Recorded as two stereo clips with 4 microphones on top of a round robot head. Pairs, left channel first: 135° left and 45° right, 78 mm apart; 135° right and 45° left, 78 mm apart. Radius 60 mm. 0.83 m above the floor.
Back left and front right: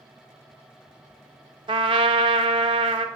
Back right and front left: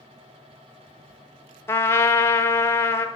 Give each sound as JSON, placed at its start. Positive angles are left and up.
{"t": 1.7, "sound": "a trumpet", "azimuth_deg": -75, "distance_m": 0.5}